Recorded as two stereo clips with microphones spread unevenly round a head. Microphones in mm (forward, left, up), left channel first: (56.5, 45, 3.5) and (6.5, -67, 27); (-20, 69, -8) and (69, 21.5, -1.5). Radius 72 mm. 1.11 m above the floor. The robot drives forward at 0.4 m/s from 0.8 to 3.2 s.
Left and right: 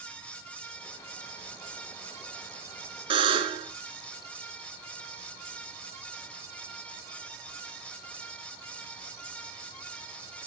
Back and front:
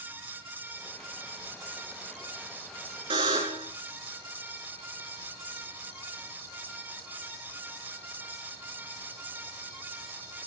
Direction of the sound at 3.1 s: 75° right.